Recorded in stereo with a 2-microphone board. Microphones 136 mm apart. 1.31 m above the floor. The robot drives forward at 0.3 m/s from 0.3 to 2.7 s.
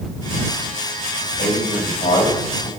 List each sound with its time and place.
1.4 s a man speaking: 65° left (ahead or behind), 6 m